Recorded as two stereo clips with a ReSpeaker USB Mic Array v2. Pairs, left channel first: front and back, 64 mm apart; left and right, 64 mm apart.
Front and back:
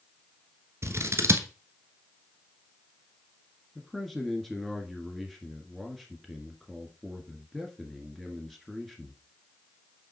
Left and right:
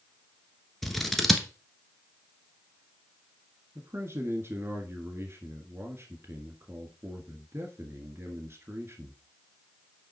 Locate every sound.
0.8 s scissors: 175° left, 1.1 m
3.8 s a man speaking: 85° right, 1.4 m